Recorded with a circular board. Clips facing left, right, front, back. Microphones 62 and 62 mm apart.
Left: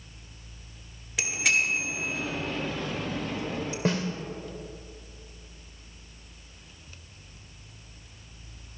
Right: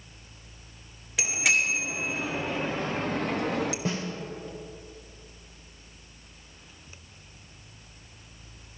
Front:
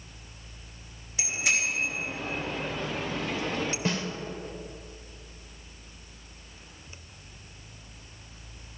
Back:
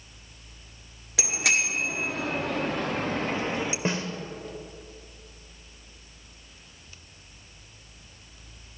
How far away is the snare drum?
About 2 m.